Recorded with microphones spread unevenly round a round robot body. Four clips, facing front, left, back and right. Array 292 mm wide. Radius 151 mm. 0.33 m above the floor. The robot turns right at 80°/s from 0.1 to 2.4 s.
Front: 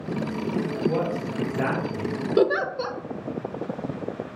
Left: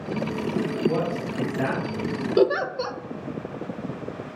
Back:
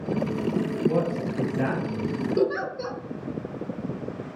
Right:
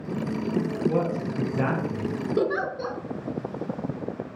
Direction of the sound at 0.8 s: 175° left.